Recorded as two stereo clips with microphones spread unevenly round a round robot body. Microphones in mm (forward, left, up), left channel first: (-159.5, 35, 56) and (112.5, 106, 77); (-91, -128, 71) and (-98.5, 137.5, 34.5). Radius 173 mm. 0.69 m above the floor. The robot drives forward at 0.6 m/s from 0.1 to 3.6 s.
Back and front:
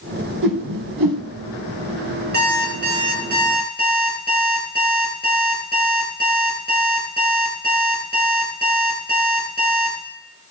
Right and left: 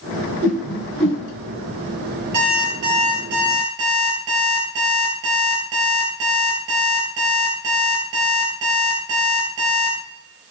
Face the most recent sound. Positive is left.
turn(degrees=75)